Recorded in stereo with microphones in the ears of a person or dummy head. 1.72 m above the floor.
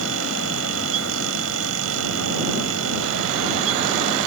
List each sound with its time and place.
0.0 s a fan: 75° right (ahead or behind)